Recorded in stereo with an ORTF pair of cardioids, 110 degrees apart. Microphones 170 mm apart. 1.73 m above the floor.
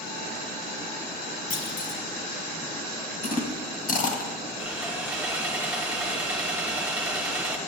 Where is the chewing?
55° left, 2.0 m.